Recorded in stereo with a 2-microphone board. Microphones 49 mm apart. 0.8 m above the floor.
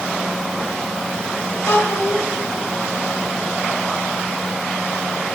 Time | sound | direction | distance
1.7 | a child speaking | 55° left (ahead or behind) | 2.5 m